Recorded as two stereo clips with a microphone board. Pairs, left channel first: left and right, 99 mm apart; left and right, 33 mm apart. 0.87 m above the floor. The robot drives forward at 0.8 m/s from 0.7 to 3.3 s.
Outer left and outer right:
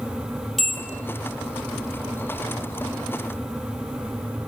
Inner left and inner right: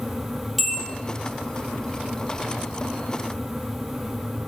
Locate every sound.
0.6 s a bell: centre (ahead or behind), 0.9 m